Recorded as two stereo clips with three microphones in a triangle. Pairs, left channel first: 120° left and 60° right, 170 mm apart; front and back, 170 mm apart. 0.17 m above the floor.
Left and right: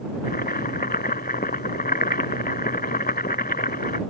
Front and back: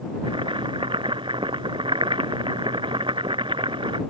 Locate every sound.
0.2 s boiling: 125° left